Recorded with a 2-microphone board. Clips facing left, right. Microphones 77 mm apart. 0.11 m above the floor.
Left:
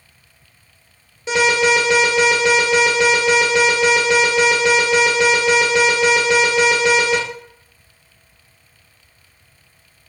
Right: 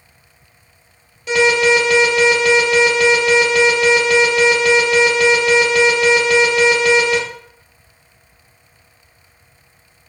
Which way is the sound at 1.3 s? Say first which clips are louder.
Right 2 dB; 25° left (ahead or behind).